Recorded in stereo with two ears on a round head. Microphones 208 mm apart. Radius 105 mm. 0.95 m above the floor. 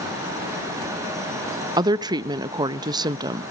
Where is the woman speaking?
20° right (ahead or behind), 0.6 m.